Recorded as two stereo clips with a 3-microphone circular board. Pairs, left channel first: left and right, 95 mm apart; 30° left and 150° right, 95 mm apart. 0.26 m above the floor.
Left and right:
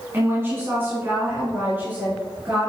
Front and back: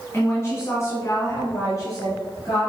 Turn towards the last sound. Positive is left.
turn(degrees=-20)